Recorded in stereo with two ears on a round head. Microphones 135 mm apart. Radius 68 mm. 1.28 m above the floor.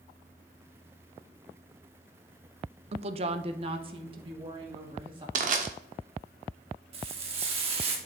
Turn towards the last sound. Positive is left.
turn(degrees=-40)  # may be behind; listen again after turning